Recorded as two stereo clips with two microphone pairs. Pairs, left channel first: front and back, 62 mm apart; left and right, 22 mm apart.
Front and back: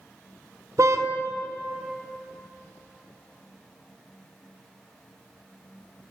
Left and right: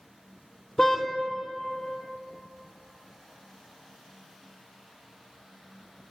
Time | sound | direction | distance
0.8 | a car horn | 150° left | 2.5 m